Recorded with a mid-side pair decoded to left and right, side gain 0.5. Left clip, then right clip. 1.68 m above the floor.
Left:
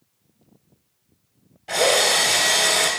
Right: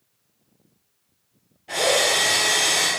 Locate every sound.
1.7 s a drill: 40° left, 1.9 m